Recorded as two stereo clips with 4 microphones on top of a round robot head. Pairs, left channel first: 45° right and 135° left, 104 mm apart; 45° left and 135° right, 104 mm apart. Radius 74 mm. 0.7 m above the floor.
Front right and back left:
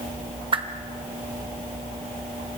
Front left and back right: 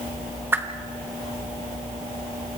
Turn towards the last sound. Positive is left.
turn(degrees=160)